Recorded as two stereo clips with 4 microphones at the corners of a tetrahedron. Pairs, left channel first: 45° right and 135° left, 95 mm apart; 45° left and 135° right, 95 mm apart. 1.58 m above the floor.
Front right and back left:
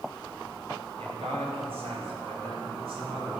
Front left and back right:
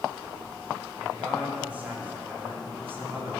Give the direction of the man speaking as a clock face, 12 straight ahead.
7 o'clock.